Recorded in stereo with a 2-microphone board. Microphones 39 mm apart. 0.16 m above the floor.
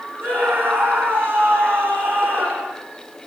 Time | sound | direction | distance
0.2 | a scream | 60° right (ahead or behind) | 9 m